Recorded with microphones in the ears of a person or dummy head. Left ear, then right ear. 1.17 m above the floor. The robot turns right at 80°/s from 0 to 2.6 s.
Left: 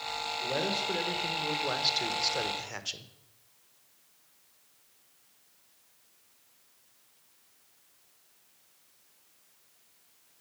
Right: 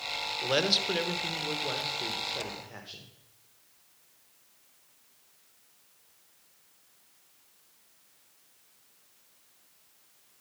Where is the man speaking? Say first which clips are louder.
Right 6 dB; 70° right, 1.0 m; by 3.1 s 105° left, 1.0 m.